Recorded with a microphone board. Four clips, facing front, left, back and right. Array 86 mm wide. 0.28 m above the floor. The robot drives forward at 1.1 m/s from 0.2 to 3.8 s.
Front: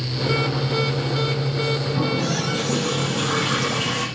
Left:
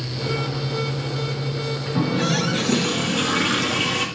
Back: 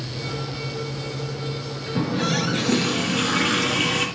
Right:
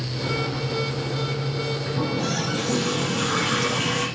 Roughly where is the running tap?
Behind left.